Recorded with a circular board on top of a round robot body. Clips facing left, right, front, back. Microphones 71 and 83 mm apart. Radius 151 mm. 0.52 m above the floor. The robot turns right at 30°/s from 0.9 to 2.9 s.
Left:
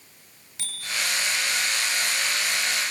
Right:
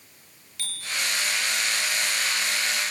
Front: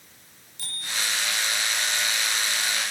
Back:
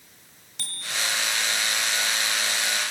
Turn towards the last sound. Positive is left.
turn(degrees=-145)